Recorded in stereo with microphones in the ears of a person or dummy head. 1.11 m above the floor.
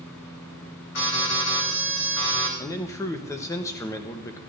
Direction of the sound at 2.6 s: 20° left (ahead or behind).